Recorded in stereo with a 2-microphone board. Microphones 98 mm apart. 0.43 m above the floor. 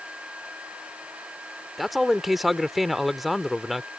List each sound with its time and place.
1.8 s a man speaking: centre (ahead or behind)